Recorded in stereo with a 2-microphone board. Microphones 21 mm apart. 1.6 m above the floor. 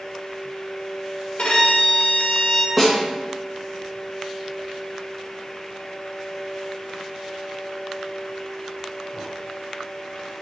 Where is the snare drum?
Centre (ahead or behind), 0.9 m.